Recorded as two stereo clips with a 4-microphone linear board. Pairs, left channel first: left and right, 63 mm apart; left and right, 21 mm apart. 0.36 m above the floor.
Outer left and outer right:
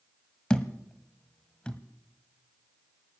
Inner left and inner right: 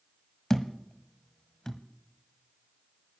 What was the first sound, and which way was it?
A thud, 15° left (ahead or behind).